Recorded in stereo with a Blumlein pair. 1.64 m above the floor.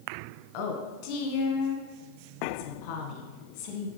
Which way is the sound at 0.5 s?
40° left.